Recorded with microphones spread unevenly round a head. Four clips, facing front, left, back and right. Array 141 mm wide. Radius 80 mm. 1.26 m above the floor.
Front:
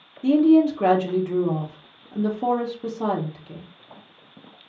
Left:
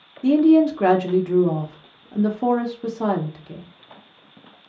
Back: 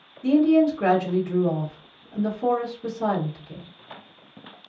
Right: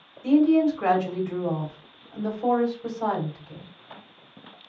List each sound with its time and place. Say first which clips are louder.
0.2 s a woman speaking: left 4 dB, front 2 dB; 65° left, 1.1 m